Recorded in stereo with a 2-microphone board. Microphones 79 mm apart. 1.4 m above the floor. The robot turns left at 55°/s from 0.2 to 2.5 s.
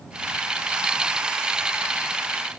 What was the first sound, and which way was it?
Only background noise.